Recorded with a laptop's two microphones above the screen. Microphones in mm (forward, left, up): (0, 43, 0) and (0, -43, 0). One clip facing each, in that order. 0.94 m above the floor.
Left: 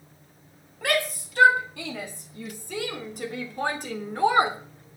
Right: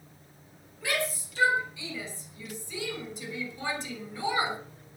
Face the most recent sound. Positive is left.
turn(degrees=50)  # may be behind; listen again after turning